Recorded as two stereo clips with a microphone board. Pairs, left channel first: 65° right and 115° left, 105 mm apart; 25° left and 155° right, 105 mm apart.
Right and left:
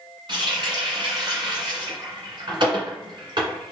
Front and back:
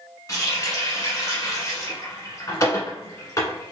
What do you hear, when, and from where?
0.3 s a running tap: 80° left, 1.7 m